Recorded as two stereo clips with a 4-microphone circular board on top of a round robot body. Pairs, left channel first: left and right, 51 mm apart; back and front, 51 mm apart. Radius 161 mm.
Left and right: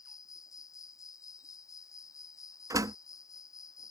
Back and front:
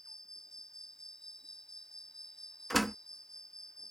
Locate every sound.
0.0 s an insect: 100° left
2.7 s a door slam: 90° right